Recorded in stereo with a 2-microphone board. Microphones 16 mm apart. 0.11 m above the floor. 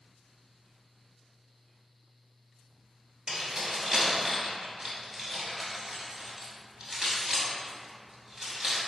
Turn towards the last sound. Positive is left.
turn(degrees=-25)  # may be behind; listen again after turning